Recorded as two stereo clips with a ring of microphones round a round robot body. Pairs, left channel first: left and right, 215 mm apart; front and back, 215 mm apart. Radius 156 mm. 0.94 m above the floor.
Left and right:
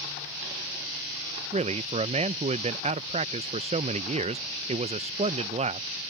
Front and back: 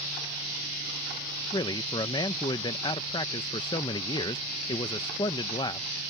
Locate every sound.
1.5 s a man speaking: 55° right